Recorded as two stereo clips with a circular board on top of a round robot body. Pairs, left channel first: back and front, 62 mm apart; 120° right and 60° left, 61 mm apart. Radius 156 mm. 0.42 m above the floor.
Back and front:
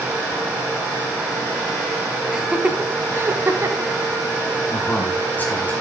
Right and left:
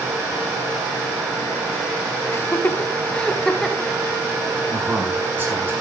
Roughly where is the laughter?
Right.